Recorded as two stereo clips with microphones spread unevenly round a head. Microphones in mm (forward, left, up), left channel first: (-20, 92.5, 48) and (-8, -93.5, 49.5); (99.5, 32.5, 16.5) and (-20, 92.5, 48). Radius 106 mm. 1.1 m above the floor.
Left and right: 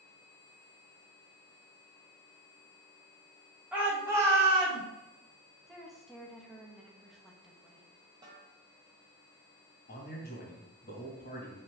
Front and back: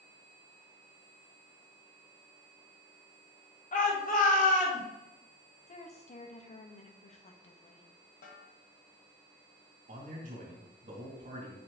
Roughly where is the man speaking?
Behind left.